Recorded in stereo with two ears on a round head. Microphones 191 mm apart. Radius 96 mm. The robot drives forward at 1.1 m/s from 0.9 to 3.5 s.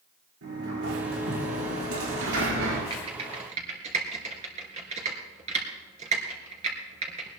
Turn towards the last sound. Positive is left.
turn(degrees=-35)  # may be behind; listen again after turning